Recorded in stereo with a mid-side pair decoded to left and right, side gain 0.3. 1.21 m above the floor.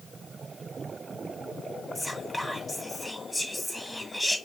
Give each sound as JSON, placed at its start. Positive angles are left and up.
{"t": 1.9, "sound": "whispering", "azimuth_deg": 0, "distance_m": 1.7}